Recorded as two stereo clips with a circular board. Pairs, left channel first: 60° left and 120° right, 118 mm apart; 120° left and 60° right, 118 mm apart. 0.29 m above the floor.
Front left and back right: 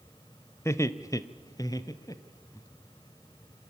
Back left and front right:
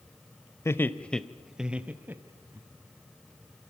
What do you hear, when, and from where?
0.7 s laughter: 90° left, 0.9 m; by 2.6 s 5° left, 1.6 m